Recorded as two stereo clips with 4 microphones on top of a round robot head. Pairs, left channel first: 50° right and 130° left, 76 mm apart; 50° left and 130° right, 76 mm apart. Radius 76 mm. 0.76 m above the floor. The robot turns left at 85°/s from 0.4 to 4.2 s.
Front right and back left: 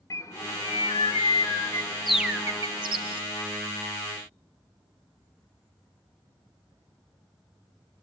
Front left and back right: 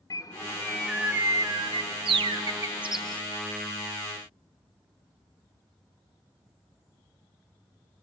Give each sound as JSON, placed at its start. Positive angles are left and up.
{"t": 0.1, "sound": "a bird", "azimuth_deg": 5, "distance_m": 0.9}